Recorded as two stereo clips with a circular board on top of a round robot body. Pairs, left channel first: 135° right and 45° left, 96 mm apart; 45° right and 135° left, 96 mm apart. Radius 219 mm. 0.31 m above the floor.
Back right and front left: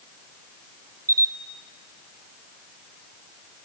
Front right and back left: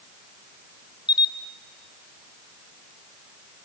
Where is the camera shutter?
10° right, 0.7 m.